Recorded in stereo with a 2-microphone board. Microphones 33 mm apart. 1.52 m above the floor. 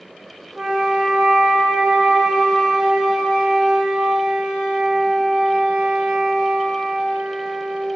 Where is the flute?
20° right (ahead or behind), 3 m.